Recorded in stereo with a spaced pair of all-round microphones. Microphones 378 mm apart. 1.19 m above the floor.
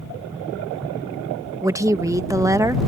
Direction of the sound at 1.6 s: 10° right (ahead or behind).